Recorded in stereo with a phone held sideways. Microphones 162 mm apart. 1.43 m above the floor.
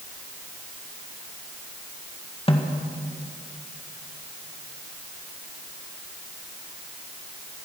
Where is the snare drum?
35° left (ahead or behind), 2.0 m.